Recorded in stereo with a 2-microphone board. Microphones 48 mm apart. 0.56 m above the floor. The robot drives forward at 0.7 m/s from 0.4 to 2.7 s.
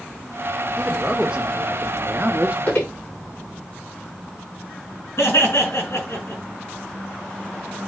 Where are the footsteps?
30° left (ahead or behind), 5.5 m.